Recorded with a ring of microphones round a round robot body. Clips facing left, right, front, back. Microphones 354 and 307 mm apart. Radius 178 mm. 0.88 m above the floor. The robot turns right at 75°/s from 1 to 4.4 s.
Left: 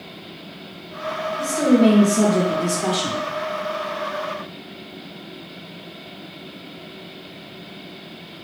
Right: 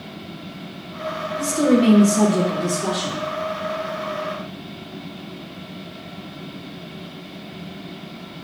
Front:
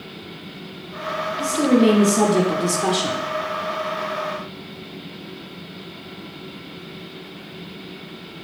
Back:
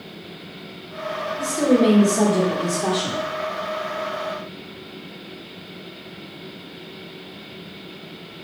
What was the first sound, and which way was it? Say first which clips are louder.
A woman speaking: left 1 dB, front 1 dB; 80° right.